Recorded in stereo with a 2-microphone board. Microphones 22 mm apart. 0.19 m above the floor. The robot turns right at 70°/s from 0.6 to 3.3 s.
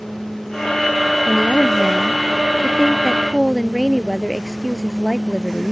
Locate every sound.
1.3 s a woman speaking: 35° left; by 5.7 s 175° left